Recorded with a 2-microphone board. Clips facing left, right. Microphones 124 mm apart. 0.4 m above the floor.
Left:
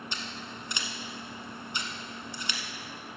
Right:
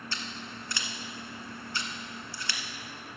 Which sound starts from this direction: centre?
Scissors, at 0.1 s.